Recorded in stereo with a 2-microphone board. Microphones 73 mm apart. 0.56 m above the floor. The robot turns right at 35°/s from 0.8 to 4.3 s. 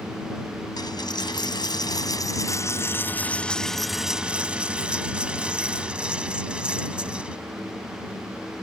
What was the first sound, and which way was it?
A dropped coin, 75° left.